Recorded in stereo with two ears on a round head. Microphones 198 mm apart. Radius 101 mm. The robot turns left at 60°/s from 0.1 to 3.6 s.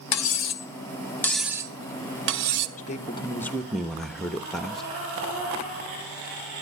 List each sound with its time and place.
0.1 s cutlery clinking: 75° left (ahead or behind), 0.8 m; by 2.7 s 75° right (ahead or behind), 0.8 m
2.8 s a man speaking: 50° left, 1.0 m; by 4.8 s straight ahead, 1.0 m